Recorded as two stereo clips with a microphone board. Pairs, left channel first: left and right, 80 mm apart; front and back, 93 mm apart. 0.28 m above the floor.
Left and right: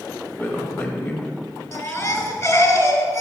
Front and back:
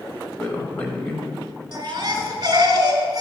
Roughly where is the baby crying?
Behind left.